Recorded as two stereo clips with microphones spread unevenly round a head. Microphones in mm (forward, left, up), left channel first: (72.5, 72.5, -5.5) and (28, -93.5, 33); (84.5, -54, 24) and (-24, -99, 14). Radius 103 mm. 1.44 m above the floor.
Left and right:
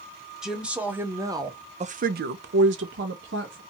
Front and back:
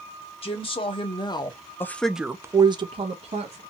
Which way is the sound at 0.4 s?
15° right.